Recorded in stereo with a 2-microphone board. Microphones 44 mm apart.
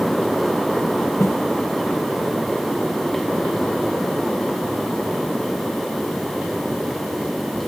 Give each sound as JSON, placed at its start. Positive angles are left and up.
{"t": 1.2, "sound": "a snare drum", "side_deg": 80}